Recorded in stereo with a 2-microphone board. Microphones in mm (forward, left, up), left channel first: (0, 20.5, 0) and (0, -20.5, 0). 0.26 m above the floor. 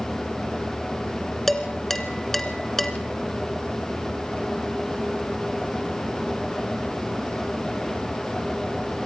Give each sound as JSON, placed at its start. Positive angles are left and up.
{"t": 1.5, "sound": "dishes clattering", "side_deg": 10, "distance_m": 2.5}